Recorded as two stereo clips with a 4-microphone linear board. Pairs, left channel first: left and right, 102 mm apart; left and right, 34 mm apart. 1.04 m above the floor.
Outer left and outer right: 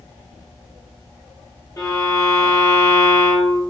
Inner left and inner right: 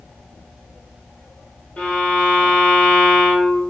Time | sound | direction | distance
1.8 | a violin | 40° left (ahead or behind) | 2.5 m